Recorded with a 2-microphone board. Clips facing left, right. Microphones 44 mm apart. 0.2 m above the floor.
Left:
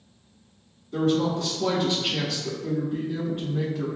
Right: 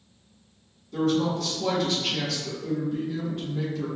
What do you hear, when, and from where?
0.9 s a woman speaking: 25° left (ahead or behind), 1.1 m